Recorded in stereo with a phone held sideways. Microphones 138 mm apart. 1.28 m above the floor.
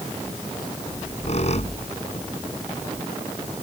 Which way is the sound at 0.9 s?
55° left (ahead or behind).